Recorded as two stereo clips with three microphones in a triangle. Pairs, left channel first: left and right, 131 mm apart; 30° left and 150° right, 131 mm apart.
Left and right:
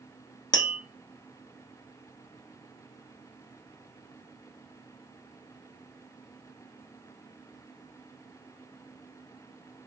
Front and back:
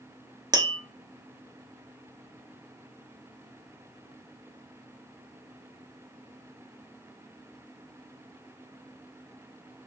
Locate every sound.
0.5 s tapping: 150° left, 0.6 m